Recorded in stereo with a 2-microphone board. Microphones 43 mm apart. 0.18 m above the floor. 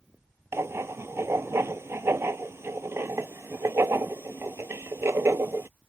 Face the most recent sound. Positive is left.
turn(degrees=-80)